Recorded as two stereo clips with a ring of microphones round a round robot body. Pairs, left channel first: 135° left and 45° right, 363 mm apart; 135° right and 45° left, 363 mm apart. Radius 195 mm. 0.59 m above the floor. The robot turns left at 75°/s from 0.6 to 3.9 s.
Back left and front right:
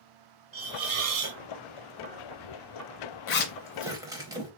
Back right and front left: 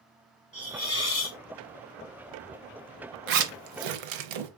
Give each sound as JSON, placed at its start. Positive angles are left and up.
{"t": 0.5, "sound": "a hiss", "azimuth_deg": -60, "distance_m": 1.3}
{"t": 3.3, "sound": "a zipper", "azimuth_deg": 80, "distance_m": 0.5}